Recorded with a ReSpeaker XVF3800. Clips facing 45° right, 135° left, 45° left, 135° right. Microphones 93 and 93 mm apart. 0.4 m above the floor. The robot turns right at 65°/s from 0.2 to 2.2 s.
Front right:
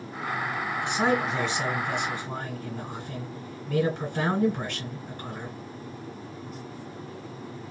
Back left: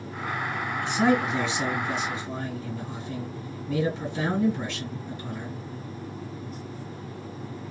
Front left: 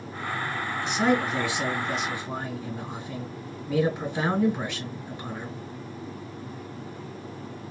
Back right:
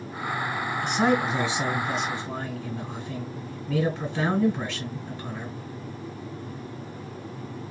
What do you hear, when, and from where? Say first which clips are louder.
0.8 s a man speaking: back left 3 dB, back right 1 dB; 120° right, 1.9 m; by 5.6 s 30° right, 1.9 m